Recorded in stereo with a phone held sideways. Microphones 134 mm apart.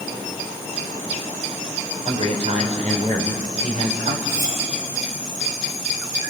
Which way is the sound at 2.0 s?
55° right (ahead or behind).